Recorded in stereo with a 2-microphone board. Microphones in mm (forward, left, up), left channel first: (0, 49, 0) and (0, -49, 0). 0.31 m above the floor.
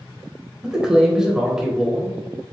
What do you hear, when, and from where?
0.6 s a man speaking: 10° right (ahead or behind), 1.0 m